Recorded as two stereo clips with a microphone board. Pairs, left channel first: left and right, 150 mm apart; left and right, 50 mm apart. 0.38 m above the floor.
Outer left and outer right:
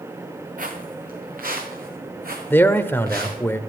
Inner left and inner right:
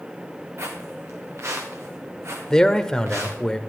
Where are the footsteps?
65° right (ahead or behind), 3 m; by 3.4 s 75° right (ahead or behind), 6 m.